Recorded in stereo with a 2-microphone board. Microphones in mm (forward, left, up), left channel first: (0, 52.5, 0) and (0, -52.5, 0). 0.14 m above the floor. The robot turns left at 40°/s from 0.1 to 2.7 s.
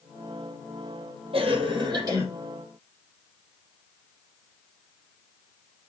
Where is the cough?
110° right, 4.5 m; by 2.2 s 145° right, 4.5 m.